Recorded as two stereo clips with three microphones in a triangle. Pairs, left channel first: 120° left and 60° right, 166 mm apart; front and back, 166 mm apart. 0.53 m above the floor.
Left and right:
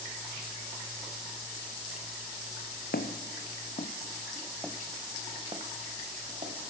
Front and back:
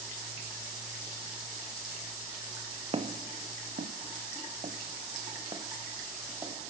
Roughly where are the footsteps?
Behind left.